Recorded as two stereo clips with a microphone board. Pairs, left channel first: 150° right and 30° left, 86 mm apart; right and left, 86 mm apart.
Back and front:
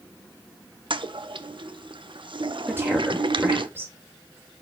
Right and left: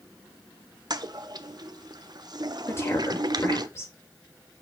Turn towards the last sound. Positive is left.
turn(degrees=-35)